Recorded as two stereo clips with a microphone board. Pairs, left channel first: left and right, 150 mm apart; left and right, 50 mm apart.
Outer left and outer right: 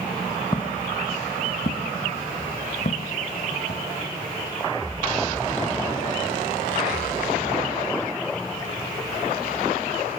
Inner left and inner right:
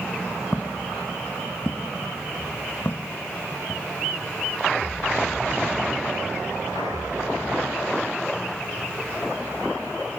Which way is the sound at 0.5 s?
30° left (ahead or behind).